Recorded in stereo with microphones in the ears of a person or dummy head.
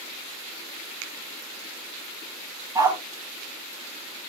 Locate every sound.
1.0 s a finger snap: 70° right (ahead or behind), 1.3 m
2.8 s a dog barking: 20° right (ahead or behind), 1.3 m